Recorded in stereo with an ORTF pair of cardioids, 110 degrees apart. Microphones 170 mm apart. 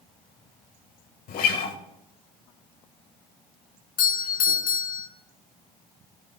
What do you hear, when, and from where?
1.3 s a guitar: 60° left, 2 m
4.0 s a doorbell: 60° left, 4 m